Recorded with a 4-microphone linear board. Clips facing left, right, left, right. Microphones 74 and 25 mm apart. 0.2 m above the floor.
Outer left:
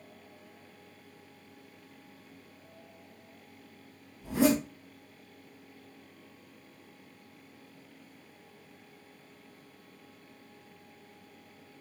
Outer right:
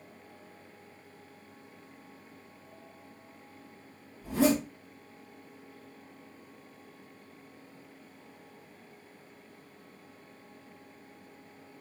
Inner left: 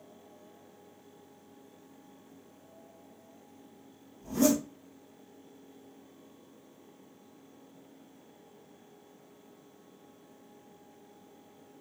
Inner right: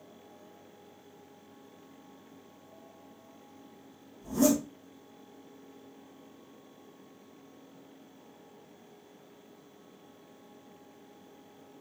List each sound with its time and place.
4.2 s a zipper: 20° left (ahead or behind), 2.5 m